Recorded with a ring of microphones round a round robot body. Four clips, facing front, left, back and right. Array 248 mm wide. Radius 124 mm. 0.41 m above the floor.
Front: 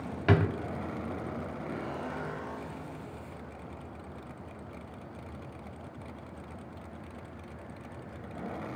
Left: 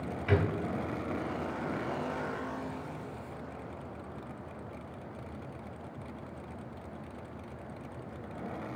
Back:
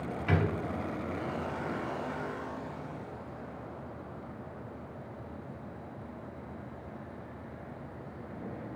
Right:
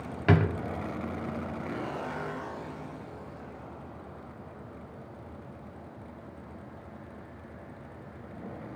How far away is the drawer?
About 0.9 m.